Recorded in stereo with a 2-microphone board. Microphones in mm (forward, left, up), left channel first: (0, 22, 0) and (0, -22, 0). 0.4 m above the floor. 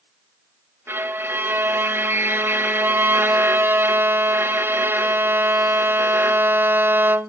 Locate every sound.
0.9 s a violin: 65° right (ahead or behind), 0.6 m